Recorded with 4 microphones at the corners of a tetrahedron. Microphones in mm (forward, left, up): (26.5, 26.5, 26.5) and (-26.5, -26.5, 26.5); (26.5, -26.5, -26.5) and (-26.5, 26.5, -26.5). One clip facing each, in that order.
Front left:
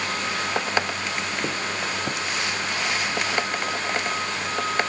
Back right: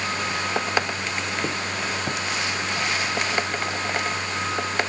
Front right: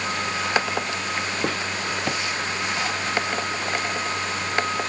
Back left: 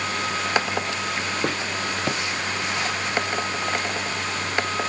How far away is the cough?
No cough in this recording.